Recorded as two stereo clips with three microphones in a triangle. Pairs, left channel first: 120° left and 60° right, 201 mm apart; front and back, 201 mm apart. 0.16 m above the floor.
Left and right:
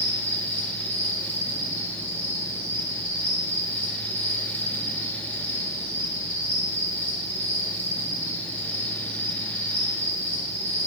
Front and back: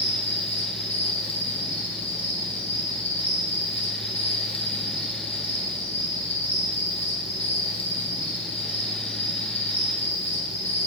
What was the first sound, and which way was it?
An insect, 10° right.